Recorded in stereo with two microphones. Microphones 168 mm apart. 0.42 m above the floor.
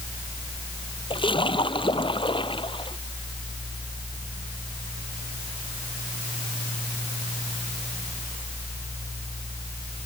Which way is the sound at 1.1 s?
30° left (ahead or behind).